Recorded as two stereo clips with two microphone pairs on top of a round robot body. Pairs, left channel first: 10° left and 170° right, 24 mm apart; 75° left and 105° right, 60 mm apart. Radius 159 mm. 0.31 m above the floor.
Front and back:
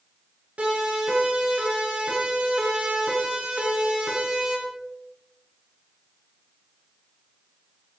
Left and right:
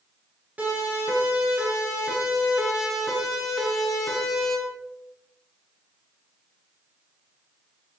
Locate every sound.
0.6 s a siren: 170° right, 9.5 m; by 4.6 s 155° left, 7 m